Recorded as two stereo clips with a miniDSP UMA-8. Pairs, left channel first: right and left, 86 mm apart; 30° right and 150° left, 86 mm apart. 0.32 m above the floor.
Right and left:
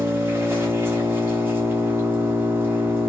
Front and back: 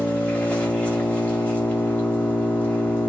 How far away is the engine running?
About 0.9 m.